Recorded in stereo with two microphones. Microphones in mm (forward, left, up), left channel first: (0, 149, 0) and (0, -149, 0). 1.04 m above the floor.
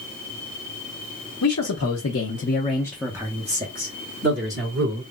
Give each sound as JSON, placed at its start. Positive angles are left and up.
{"t": 1.4, "sound": "a man speaking", "side_deg": 70, "distance_m": 1.1}